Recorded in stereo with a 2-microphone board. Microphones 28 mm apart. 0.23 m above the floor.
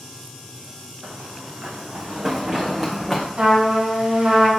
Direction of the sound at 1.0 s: 65° right (ahead or behind).